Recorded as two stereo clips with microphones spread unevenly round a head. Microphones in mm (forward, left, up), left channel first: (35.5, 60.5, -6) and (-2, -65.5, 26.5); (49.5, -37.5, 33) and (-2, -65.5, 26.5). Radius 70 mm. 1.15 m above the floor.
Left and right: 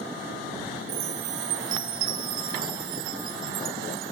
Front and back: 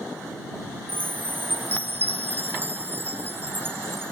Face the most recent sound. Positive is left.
turn(degrees=-100)